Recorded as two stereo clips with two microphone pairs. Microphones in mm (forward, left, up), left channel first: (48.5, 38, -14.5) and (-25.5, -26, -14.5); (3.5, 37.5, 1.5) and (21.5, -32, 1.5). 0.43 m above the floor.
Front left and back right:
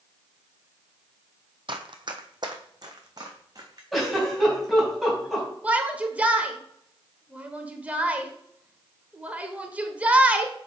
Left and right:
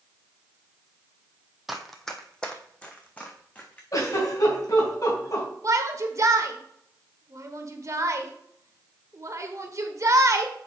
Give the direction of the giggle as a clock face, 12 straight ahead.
8 o'clock.